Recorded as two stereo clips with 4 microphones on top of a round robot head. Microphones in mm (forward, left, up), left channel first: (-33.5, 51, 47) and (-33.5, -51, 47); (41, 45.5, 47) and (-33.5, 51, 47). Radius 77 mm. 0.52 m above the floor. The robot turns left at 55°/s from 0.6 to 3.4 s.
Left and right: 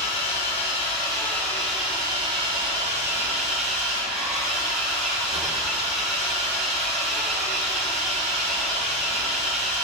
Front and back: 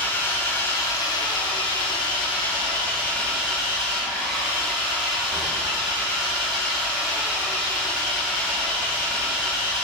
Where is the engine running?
60° left, 2.5 m; by 9.8 s 95° right, 2.5 m.